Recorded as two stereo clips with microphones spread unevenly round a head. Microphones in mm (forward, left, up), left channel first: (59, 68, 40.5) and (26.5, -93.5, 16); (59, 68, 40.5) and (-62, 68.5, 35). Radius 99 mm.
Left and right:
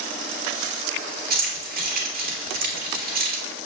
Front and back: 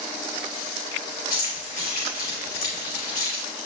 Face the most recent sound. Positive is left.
turn(degrees=-65)